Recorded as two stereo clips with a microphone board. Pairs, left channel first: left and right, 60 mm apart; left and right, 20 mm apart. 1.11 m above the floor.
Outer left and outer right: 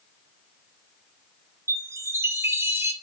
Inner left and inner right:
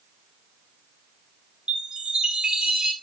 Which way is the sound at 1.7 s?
45° right (ahead or behind).